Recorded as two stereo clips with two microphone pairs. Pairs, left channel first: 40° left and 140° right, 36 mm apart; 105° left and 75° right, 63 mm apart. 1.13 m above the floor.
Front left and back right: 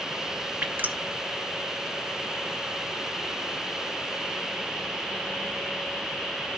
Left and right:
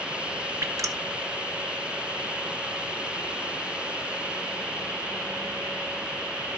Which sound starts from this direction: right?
Dripping, at 0.6 s.